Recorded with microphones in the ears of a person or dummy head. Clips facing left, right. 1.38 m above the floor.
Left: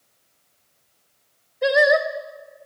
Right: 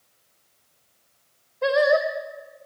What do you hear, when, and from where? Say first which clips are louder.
1.6 s singing: left 1 dB; 15° left (ahead or behind), 1.6 m